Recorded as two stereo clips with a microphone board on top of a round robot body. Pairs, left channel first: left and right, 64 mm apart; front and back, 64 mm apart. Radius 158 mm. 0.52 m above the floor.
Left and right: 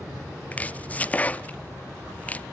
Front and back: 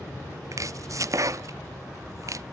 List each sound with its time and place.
0.5 s chopping: 155° left, 0.6 m